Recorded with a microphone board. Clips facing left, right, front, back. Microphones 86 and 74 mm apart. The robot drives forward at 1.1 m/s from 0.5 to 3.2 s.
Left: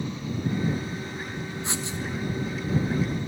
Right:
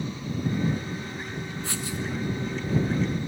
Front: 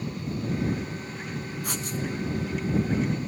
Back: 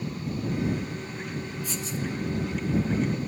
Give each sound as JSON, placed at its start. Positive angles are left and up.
{"t": 1.6, "sound": "writing", "azimuth_deg": 20, "distance_m": 1.5}